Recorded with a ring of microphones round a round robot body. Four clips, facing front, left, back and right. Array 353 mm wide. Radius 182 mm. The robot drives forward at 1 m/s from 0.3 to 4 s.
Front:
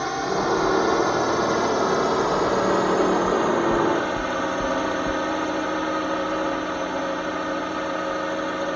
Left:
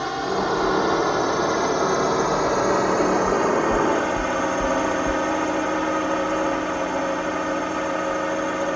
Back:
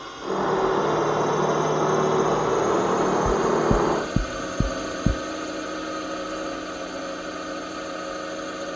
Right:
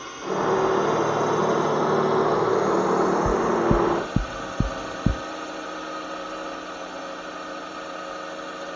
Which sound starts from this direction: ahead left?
A drone, at 0.0 s.